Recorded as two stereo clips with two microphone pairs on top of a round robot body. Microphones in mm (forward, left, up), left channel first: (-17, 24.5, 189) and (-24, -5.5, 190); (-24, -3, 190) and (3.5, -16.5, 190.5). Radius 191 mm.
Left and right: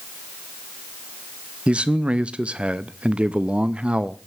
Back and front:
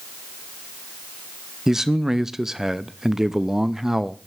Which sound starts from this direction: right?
A man speaking, at 1.7 s.